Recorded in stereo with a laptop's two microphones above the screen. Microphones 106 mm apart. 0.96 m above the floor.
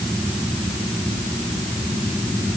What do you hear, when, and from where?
Only background noise.